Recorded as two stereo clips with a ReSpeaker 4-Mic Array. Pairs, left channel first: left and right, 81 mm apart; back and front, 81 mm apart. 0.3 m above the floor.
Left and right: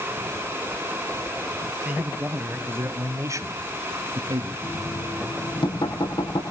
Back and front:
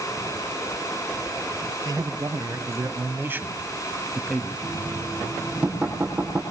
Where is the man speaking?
20° right, 2.5 m; by 4.5 s 95° right, 2 m.